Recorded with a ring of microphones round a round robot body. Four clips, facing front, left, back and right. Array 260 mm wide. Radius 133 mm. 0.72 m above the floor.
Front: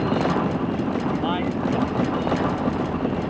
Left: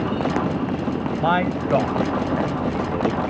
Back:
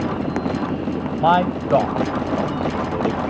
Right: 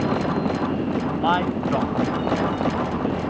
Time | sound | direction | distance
1.2 | a man speaking | 155° left | ?